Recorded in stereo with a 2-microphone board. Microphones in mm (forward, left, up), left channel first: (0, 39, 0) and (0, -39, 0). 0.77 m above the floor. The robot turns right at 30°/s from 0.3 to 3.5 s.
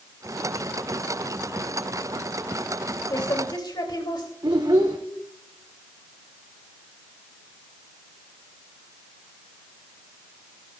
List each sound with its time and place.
3.1 s a woman speaking: 65° left (ahead or behind), 3 m; by 4.3 s 75° left (ahead or behind), 3 m
4.4 s a child speaking: 70° right (ahead or behind), 1.1 m